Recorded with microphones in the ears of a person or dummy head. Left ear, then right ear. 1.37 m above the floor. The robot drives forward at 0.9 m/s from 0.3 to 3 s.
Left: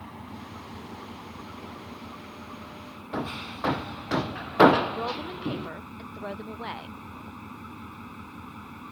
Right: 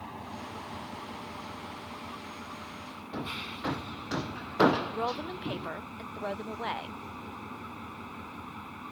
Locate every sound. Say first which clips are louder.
0.0 s an engine running: right 1 dB; 25° right (ahead or behind); by 8.9 s 20° right (ahead or behind)
3.1 s hammering: left 4 dB; 20° left (ahead or behind)
4.9 s a woman speaking: left 1 dB; 20° right (ahead or behind)